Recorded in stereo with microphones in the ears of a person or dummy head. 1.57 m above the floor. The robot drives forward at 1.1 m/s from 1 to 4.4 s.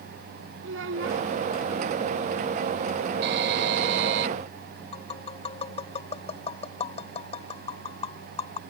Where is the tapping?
25° left (ahead or behind).